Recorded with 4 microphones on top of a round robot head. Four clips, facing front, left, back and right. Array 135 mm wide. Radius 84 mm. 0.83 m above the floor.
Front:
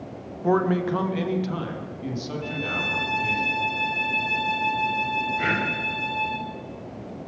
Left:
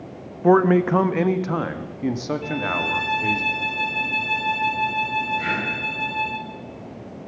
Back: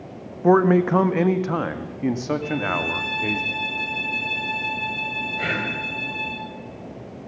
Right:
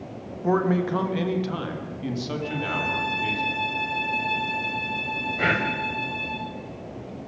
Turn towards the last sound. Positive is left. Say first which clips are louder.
# right 2 dB, back 2 dB
turn(degrees=-105)